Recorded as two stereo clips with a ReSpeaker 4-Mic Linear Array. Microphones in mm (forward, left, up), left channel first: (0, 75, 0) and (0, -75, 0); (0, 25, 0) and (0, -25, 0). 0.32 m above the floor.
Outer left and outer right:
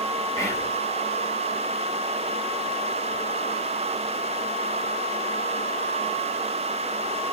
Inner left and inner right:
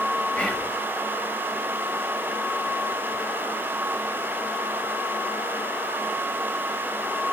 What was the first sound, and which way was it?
Whispering, 20° left (ahead or behind).